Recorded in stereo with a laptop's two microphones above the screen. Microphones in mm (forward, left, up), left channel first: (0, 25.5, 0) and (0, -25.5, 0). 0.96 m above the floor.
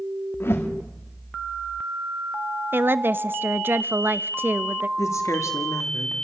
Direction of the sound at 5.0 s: 80° left.